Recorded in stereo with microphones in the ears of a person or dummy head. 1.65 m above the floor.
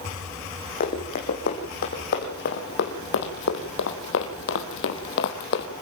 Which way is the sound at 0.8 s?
40° left (ahead or behind).